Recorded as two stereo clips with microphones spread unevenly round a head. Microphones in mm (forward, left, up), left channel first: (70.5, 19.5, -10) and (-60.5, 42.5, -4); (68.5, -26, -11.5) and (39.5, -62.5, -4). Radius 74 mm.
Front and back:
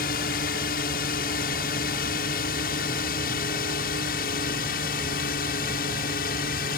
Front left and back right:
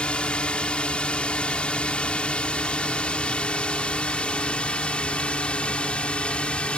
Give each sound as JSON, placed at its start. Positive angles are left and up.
{"t": 0.0, "sound": "a drone", "azimuth_deg": -15}